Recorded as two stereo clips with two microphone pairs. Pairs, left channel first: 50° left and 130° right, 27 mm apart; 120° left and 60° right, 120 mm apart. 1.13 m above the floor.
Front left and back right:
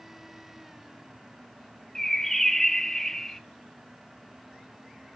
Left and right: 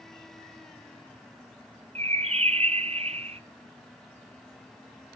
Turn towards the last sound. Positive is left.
turn(degrees=-30)